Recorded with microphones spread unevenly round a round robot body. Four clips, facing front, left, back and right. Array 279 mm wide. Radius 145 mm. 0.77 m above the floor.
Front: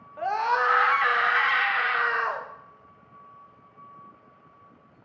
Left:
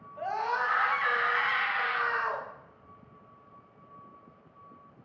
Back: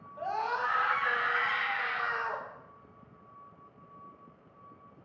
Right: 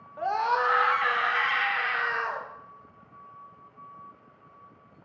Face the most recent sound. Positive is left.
turn(degrees=-5)